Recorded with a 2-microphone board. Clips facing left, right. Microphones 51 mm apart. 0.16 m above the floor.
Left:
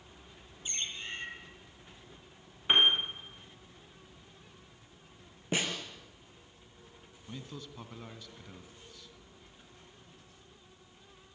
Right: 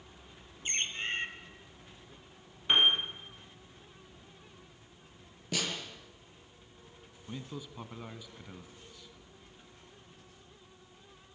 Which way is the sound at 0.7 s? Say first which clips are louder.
Right 5 dB; 45° right (ahead or behind).